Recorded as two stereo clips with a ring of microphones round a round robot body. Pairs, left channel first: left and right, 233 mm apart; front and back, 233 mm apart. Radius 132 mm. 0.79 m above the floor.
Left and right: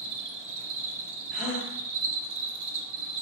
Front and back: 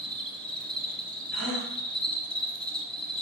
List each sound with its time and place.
0.0 s an insect: 85° right, 0.7 m
1.3 s a gasp: 175° left, 2 m